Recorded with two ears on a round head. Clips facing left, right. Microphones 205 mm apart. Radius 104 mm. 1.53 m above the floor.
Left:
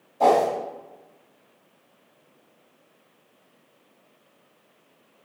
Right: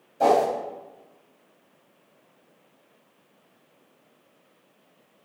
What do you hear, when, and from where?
0.2 s a whoosh: 15° right (ahead or behind), 1.0 m